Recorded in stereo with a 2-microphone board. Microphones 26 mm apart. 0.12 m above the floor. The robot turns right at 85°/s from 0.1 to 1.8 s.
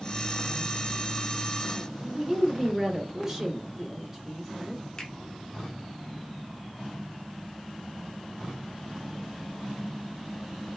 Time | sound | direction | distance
2.0 | a woman speaking | 15° right (ahead or behind) | 1.7 m
5.0 | a finger snap | 30° left (ahead or behind) | 0.9 m